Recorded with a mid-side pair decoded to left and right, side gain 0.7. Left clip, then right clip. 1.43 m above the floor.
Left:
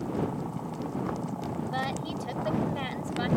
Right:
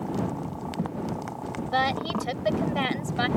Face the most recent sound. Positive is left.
turn(degrees=-35)